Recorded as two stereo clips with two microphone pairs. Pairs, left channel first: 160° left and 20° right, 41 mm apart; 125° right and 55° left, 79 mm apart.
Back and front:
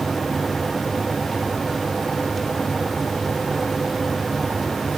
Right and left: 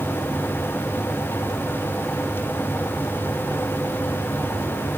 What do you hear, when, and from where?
Only background noise.